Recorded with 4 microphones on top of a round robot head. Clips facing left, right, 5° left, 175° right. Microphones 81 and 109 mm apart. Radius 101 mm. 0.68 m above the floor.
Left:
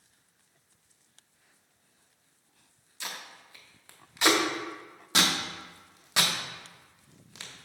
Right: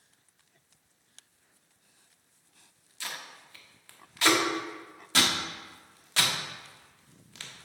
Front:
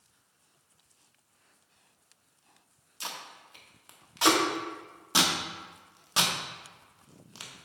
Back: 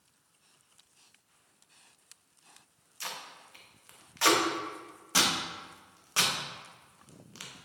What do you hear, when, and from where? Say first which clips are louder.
3.0 s tape being pulled: even, front 1 dB; 40° left, 1.2 m